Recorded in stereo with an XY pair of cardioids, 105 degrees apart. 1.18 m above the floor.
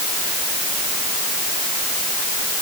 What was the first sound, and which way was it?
Only background noise.